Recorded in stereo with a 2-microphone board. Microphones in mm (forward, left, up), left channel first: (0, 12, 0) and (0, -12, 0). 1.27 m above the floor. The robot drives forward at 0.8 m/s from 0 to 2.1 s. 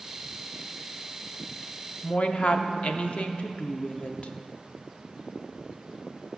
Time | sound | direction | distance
2.0 | a woman speaking | 55° left (ahead or behind) | 0.5 m